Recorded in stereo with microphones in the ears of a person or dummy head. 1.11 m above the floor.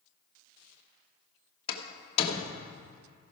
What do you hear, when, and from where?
1.7 s a door slam: 35° left (ahead or behind), 1.3 m